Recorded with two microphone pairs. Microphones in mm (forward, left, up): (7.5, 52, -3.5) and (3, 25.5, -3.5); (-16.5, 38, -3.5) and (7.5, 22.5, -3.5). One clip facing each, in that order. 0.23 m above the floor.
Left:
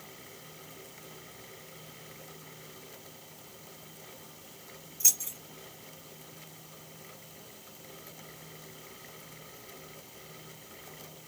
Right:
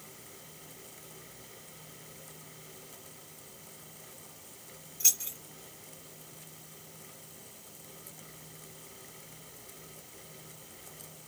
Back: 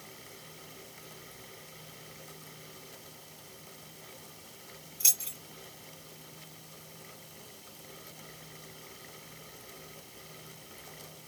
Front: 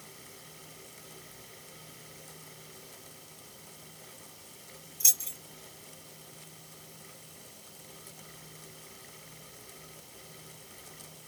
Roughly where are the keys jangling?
Behind.